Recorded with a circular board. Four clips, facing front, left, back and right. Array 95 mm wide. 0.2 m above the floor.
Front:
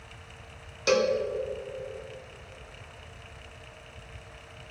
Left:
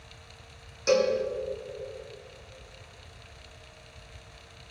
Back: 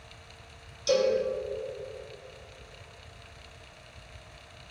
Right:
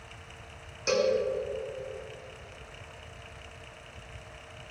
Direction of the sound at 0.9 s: Straight ahead.